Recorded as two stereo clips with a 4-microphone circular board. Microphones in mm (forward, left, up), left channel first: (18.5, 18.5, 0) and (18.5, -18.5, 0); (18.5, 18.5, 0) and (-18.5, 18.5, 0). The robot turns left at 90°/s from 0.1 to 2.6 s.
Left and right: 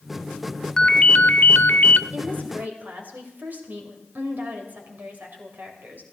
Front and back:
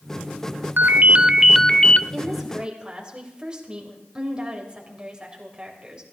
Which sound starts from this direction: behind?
A ringtone, at 0.8 s.